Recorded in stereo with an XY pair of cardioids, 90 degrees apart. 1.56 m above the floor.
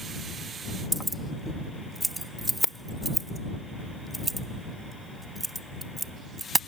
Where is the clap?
I don't hear a clap.